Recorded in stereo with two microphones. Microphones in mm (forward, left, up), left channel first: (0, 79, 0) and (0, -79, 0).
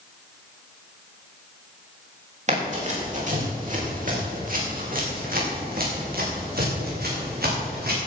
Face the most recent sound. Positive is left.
turn(degrees=-80)